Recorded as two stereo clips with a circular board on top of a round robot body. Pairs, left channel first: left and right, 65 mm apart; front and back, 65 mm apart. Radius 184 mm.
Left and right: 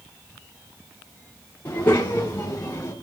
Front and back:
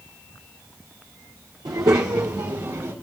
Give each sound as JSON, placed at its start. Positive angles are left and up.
{"t": 1.6, "sound": "a child speaking", "azimuth_deg": 155, "distance_m": 1.5}